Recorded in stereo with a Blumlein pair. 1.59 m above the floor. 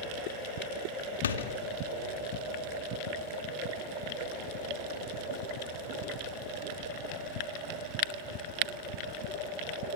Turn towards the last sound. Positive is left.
turn(degrees=65)